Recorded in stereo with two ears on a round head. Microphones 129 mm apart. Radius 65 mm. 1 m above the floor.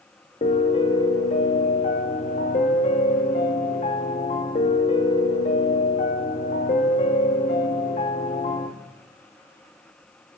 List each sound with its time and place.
0.4 s a piano: 45° left (ahead or behind), 1.6 m